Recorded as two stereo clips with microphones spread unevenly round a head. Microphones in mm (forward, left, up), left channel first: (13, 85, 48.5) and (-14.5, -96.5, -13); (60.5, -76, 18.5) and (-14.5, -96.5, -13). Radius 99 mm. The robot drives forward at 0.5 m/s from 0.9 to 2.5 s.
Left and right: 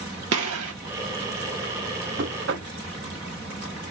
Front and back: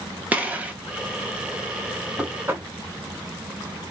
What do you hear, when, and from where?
0.3 s a gunshot: 80° right, 1.0 m
2.2 s knocking: 70° right, 0.7 m; by 2.7 s 90° right, 0.7 m